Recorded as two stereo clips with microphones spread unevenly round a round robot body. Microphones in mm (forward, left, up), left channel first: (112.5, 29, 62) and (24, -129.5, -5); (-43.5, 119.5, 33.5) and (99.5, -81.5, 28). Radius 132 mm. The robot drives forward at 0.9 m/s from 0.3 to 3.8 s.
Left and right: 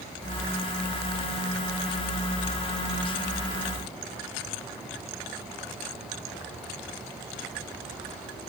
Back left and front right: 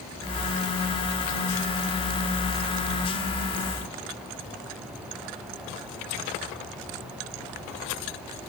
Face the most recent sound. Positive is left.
No sound to turn to.